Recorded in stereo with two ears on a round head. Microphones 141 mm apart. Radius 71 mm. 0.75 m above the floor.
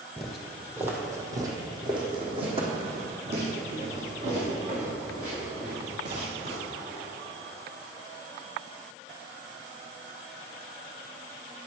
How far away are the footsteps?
About 1.2 m.